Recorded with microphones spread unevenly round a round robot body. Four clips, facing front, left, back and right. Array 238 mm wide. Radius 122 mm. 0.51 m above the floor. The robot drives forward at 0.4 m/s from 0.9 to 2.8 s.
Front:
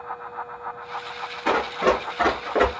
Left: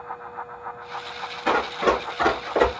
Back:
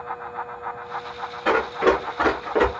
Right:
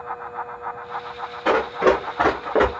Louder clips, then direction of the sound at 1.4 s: Right 3 dB, back 2 dB; 110° right.